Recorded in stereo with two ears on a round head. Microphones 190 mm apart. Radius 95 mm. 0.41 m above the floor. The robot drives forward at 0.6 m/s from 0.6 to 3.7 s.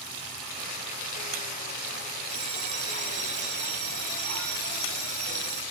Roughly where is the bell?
Right.